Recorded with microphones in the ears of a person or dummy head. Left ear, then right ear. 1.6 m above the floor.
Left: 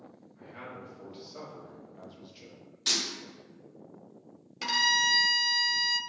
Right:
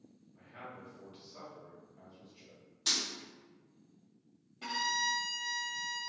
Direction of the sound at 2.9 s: 5° left (ahead or behind).